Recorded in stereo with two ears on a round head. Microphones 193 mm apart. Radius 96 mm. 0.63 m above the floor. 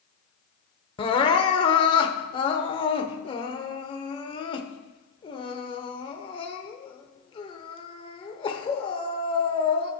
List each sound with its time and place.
1.0 s crying: 25° left (ahead or behind), 0.8 m